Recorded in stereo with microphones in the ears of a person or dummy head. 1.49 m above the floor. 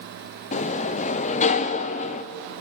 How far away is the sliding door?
About 0.6 m.